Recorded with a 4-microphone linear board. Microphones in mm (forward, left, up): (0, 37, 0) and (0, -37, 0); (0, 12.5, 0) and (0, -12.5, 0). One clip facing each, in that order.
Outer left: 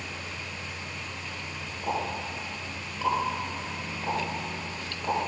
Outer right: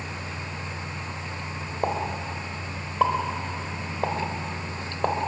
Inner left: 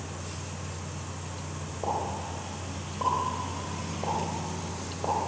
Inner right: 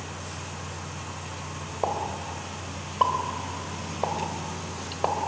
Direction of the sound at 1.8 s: 65° right (ahead or behind).